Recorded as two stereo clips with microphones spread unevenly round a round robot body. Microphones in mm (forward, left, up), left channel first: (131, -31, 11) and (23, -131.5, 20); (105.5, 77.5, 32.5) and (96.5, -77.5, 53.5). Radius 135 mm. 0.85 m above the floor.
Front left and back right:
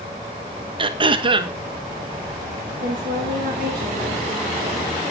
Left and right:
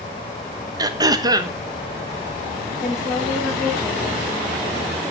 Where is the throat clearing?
150° right, 1.0 m.